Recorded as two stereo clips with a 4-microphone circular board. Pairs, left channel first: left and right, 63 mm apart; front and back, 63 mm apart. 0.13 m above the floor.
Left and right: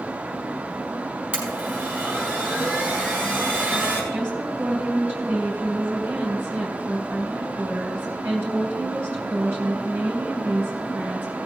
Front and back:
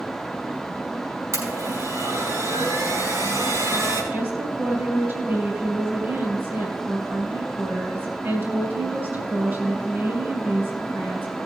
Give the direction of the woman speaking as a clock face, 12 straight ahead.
5 o'clock.